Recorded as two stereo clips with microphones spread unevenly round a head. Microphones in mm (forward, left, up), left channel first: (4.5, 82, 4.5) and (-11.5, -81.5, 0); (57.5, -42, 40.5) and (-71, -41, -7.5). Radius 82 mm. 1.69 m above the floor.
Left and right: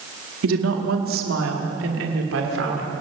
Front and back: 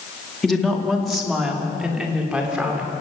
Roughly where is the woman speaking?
Right.